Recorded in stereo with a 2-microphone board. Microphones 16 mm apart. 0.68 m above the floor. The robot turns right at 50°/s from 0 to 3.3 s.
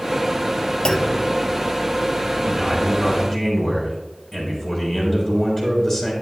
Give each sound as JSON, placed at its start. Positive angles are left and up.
{"t": 0.8, "sound": "a clunk", "side_deg": 55, "distance_m": 0.9}
{"t": 2.5, "sound": "a man speaking", "azimuth_deg": -20, "distance_m": 4.0}